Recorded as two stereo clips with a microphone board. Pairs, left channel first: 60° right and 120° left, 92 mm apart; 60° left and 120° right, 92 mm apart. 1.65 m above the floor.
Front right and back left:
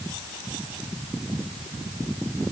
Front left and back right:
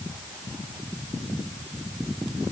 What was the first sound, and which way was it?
Only background noise.